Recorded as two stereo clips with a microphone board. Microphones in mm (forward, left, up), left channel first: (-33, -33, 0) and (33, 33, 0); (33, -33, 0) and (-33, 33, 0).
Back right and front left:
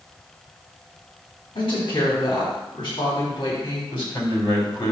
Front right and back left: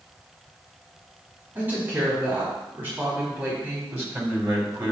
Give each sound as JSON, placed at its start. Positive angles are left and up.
{"t": 1.6, "sound": "a woman speaking", "azimuth_deg": -160, "distance_m": 3.5}
{"t": 3.9, "sound": "a man speaking", "azimuth_deg": -160, "distance_m": 3.0}